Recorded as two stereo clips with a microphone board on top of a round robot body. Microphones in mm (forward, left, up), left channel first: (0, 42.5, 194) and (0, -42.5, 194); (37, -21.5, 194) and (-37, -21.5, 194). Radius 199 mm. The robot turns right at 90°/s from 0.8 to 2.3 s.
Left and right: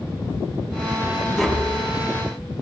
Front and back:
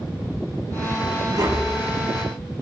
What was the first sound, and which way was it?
Tapping, 175° left.